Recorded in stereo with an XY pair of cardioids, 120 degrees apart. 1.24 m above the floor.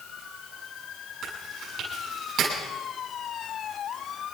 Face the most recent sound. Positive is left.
turn(degrees=-65)